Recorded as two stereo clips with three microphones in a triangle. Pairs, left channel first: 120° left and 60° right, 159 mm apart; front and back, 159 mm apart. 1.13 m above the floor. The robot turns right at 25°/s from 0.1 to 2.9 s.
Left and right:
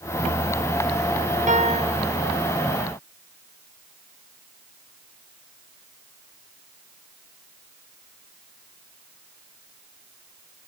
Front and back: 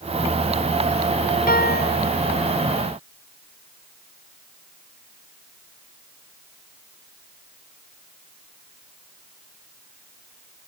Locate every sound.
1.5 s a piano: 20° right; by 2.0 s 5° right